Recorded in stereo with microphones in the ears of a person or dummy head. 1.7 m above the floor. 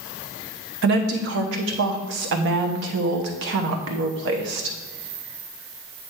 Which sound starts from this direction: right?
A woman speaking, at 0.8 s.